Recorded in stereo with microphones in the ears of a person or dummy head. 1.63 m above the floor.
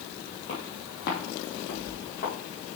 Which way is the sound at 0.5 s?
45° left (ahead or behind).